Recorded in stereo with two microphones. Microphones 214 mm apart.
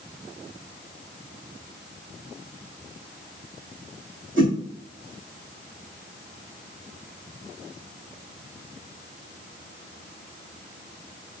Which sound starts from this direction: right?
A whoosh, at 4.4 s.